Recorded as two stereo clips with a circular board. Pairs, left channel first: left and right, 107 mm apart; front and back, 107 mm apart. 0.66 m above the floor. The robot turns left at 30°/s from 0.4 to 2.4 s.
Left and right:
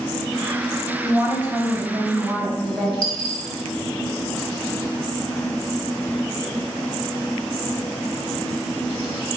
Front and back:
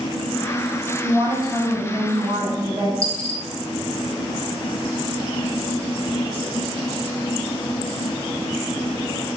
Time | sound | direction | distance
1.0 | a woman speaking | 145° right | 1.0 m
3.0 | a dropped coin | 120° left | 0.7 m